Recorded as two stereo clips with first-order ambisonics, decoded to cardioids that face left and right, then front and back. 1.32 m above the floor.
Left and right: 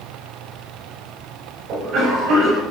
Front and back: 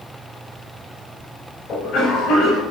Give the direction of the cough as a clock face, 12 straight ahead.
1 o'clock.